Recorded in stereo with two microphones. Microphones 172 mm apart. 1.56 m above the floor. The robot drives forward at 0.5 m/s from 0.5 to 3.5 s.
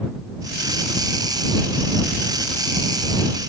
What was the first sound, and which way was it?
Only background noise.